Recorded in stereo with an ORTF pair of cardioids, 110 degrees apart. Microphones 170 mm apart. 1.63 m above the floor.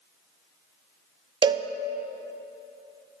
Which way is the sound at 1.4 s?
30° right.